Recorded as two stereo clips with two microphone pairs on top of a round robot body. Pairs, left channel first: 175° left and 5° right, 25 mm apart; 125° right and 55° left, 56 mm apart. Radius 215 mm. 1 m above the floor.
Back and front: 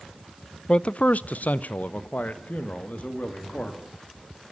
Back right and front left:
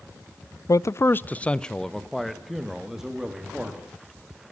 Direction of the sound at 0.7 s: 135° right.